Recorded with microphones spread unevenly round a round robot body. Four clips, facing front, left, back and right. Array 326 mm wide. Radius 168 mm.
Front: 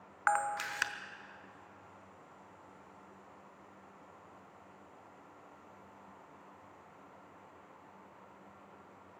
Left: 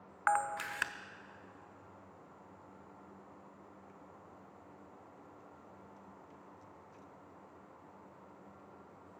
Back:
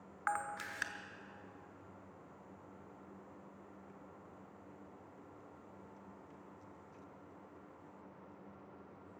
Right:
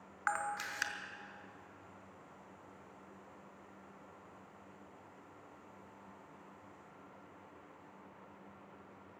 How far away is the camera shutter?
About 1.1 m.